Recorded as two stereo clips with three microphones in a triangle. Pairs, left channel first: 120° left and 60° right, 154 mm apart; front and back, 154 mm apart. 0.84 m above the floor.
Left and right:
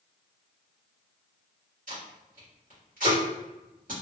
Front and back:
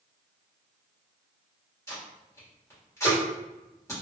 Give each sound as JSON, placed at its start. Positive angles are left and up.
{"t": 1.9, "sound": "tape being pulled", "azimuth_deg": -70, "distance_m": 1.6}